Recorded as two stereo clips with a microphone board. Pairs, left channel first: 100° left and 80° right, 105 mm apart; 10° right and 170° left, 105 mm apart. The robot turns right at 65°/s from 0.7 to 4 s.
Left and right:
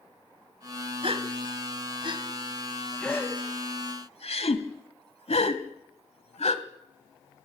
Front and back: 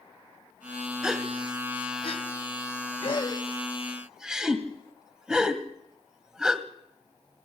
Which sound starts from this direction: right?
A gasp, at 1.0 s.